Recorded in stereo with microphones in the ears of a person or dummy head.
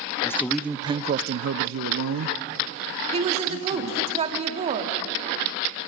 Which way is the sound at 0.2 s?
10° left (ahead or behind).